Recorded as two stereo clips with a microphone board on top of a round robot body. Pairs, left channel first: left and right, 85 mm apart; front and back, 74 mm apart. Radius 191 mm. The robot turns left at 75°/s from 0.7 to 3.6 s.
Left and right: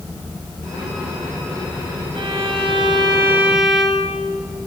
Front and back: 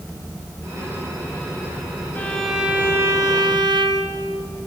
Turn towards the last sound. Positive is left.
turn(degrees=-175)